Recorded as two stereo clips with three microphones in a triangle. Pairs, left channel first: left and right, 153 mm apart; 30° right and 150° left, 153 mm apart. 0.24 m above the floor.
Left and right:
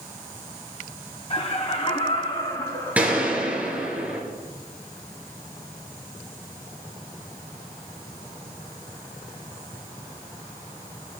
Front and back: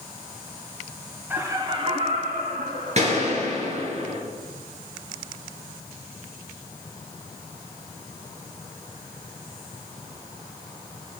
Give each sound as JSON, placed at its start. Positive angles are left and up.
{"t": 1.3, "sound": "laughter", "azimuth_deg": 80, "distance_m": 1.5}
{"t": 3.0, "sound": "a gunshot", "azimuth_deg": -170, "distance_m": 3.0}